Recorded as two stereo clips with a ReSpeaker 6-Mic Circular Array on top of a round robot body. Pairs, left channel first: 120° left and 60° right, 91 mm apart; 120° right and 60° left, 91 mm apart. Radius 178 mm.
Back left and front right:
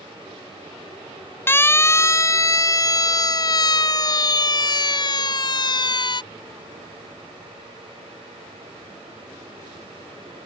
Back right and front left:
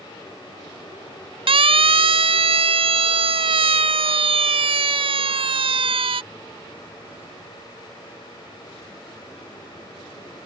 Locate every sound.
1.5 s a siren: 55° left; by 6.2 s 80° left